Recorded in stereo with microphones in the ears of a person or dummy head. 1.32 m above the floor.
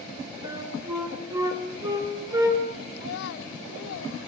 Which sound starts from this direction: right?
A flute, at 0.4 s.